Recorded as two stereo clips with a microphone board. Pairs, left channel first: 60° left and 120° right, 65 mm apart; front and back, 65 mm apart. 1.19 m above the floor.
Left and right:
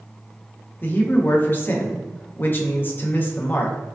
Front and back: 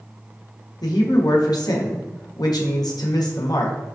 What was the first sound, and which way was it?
A man speaking, straight ahead.